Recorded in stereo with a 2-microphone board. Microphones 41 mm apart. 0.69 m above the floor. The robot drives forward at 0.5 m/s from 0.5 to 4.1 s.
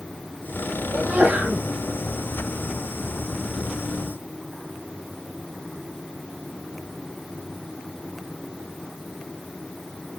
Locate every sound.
0.9 s a sneeze: 25° right (ahead or behind), 3 m; by 1.6 s 30° right (ahead or behind), 3 m